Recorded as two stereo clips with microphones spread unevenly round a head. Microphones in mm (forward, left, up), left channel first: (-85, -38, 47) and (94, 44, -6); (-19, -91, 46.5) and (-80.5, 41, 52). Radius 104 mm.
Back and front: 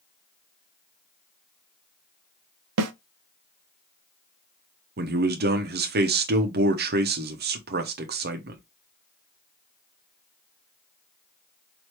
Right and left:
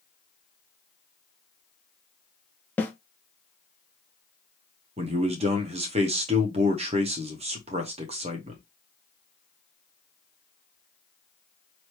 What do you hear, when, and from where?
2.8 s a snare drum: 15° left, 0.6 m
5.0 s a man speaking: 60° left, 0.8 m